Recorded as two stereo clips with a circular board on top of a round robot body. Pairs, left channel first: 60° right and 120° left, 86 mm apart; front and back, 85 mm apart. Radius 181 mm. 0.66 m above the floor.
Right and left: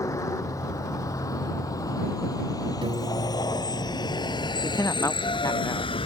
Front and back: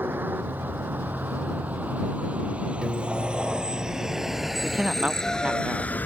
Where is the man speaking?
105° right.